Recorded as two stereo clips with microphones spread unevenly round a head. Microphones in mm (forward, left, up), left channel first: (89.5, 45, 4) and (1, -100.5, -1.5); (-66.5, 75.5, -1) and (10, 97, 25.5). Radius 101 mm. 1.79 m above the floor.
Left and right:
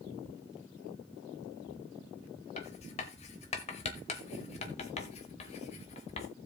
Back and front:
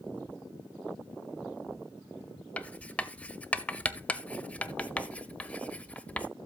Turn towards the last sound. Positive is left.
turn(degrees=120)